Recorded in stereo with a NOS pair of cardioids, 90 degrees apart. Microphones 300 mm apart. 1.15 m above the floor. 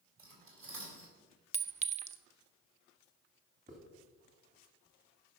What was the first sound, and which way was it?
Cutlery clinking, 45° right.